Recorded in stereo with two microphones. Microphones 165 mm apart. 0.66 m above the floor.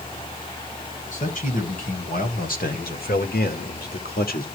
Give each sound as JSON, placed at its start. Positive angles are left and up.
{"t": 1.1, "sound": "a man speaking", "side_deg": 55, "distance_m": 4.5}